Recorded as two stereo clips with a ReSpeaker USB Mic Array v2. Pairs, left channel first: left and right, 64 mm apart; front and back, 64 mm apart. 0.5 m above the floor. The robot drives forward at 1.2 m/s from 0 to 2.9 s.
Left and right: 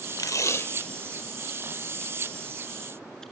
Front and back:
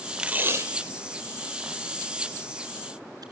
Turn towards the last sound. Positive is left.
turn(degrees=170)